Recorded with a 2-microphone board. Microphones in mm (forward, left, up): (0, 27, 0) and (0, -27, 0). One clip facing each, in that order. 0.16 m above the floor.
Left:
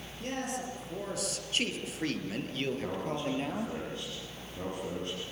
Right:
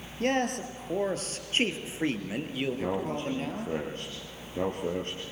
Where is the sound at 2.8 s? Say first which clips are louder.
Right 3 dB; 45° right (ahead or behind), 3 m.